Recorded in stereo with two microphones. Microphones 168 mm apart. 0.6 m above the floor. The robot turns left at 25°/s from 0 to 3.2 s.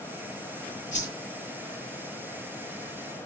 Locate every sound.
0.9 s a whoosh: 50° left (ahead or behind), 6.5 m; by 1.1 s 45° left (ahead or behind), 6.5 m